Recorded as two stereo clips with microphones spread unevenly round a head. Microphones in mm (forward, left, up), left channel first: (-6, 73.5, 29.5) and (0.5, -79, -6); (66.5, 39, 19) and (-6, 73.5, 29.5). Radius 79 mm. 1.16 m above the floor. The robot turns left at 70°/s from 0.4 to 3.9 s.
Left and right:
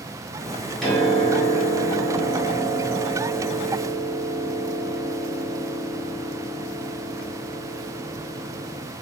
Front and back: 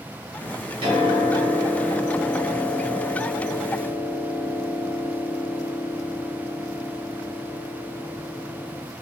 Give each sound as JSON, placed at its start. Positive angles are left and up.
{"t": 0.8, "sound": "a piano", "azimuth_deg": 175, "distance_m": 1.6}